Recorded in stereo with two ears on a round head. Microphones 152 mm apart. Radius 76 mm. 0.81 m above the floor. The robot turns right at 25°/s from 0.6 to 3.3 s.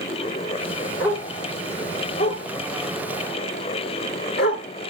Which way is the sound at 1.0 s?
10° left (ahead or behind).